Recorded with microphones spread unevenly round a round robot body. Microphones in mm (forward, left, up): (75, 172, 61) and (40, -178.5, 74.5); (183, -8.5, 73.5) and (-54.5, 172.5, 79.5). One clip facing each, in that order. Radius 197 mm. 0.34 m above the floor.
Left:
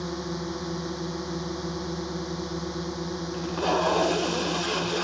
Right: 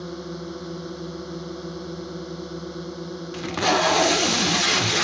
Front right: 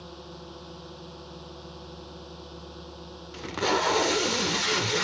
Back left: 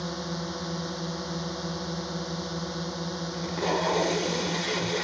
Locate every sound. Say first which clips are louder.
0.0 s a drone: left 1 dB, back left 9 dB; 170° left
3.3 s tape being pulled: right 3 dB, front right 1 dB; 95° right